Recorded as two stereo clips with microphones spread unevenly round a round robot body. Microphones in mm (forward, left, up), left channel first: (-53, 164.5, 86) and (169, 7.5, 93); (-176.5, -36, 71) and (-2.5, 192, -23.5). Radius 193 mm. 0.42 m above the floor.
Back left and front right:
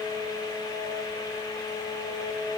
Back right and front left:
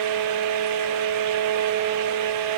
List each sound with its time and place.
Only background noise.